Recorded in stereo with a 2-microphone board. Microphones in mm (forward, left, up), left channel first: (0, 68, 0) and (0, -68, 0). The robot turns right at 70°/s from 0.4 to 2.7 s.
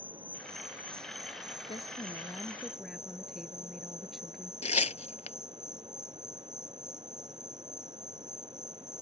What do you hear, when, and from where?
0.0 s an insect: 165° right; by 9.0 s 5° right
1.7 s a woman speaking: 110° left; by 4.5 s straight behind
4.6 s tearing paper: 55° left (ahead or behind)